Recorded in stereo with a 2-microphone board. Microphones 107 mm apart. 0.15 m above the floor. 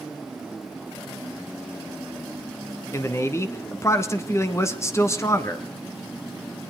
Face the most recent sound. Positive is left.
turn(degrees=25)  # may be behind; listen again after turning